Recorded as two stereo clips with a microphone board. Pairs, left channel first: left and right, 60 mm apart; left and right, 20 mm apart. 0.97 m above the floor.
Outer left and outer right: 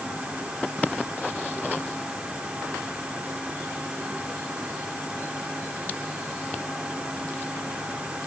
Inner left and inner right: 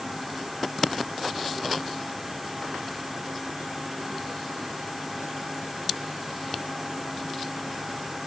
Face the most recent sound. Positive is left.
No sound to turn to.